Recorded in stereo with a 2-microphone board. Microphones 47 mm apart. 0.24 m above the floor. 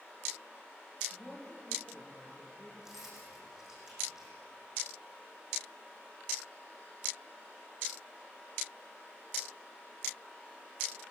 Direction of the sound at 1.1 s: 30° left (ahead or behind).